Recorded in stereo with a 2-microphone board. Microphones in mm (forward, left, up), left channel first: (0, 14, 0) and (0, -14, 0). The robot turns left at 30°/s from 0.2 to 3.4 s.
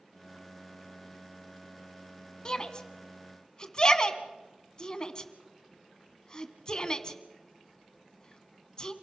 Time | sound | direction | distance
2.5 | a shout | 30° left (ahead or behind) | 1.4 m